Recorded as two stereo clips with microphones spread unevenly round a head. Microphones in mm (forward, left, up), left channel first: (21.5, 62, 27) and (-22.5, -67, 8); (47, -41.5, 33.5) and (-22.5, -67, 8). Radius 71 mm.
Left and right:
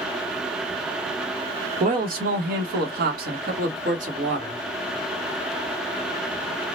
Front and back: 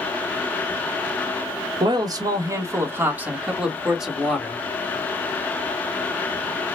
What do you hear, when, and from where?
1.8 s a man speaking: 140° right, 0.9 m; by 4.6 s 70° right, 1.7 m